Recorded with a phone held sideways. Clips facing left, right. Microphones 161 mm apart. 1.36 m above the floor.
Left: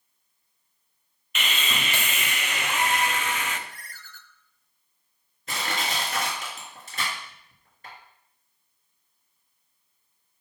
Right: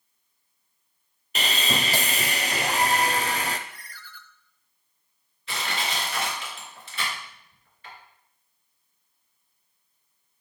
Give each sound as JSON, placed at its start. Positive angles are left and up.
{"t": 1.4, "sound": "sawing", "side_deg": -35, "distance_m": 0.5}
{"t": 3.7, "sound": "a ringtone", "side_deg": 45, "distance_m": 0.6}
{"t": 5.5, "sound": "crushing", "side_deg": 45, "distance_m": 3.0}